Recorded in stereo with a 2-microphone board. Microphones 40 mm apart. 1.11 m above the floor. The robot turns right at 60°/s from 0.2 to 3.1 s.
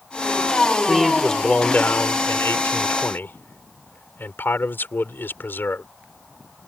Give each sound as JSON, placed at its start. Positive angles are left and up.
{"t": 0.9, "sound": "a man speaking", "azimuth_deg": -10}